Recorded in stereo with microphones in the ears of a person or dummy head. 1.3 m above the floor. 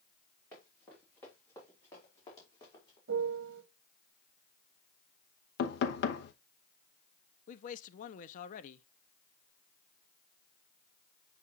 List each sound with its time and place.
0.5 s running footsteps: 10° left (ahead or behind), 5.5 m; by 3.0 s 25° left (ahead or behind), 4.5 m
3.1 s a piano: 60° right (ahead or behind), 1.0 m
5.6 s knocking: 65° left (ahead or behind), 0.9 m
7.5 s a man speaking: 45° left (ahead or behind), 0.6 m